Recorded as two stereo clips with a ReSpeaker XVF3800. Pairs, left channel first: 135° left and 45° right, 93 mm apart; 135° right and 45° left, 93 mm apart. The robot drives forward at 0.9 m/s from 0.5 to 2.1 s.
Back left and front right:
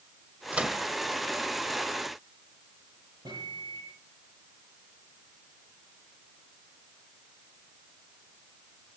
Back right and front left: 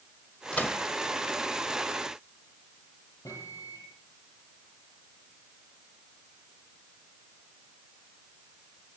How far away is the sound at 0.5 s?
About 0.7 m.